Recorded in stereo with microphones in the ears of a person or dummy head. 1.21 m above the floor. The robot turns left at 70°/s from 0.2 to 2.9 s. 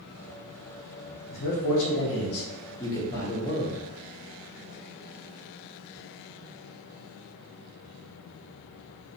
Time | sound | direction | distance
1.3 | a man speaking | 125° left | 1.0 m